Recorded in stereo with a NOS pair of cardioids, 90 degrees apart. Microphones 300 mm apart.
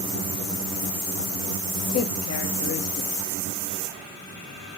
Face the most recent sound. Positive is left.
turn(degrees=55)